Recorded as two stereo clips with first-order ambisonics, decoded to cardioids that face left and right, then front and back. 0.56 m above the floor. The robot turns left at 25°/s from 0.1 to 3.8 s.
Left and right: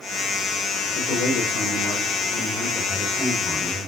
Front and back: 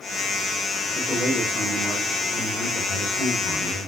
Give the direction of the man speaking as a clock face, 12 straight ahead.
10 o'clock.